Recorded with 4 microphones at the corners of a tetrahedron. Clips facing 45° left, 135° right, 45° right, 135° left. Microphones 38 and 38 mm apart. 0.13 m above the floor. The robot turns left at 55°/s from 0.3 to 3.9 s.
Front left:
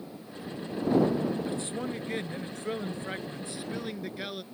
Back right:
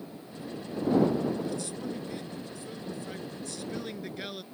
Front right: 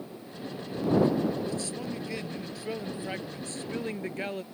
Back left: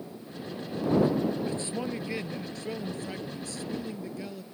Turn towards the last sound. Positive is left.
turn(degrees=-35)